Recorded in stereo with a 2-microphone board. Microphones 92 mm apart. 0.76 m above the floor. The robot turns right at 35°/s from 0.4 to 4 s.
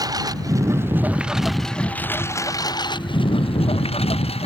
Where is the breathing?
No breathing in this recording.